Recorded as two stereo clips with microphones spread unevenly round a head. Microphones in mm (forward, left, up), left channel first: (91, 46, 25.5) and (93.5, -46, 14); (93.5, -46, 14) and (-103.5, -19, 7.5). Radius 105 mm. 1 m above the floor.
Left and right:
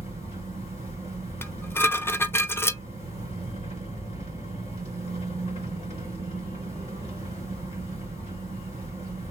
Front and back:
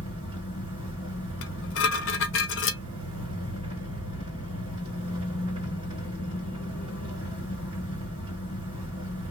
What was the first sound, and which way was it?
An engine running, 100° left.